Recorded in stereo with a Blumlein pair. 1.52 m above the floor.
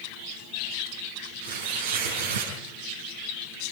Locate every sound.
1.4 s tearing paper: 60° right, 7 m